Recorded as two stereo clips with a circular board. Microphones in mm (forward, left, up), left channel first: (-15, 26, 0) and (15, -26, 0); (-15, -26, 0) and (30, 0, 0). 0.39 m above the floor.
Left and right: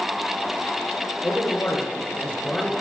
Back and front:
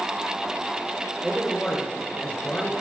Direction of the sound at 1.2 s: 120° left.